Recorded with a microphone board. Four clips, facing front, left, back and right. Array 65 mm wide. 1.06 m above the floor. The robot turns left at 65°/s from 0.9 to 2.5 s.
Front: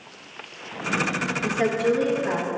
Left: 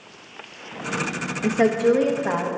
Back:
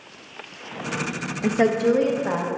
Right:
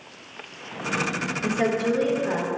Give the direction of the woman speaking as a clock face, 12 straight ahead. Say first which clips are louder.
Left 6 dB, back 4 dB; 7 o'clock.